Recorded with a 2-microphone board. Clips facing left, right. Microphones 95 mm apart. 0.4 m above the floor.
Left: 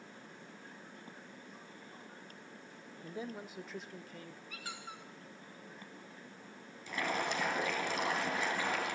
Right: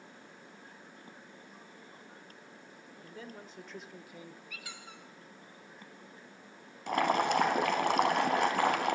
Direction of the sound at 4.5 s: 35° left (ahead or behind).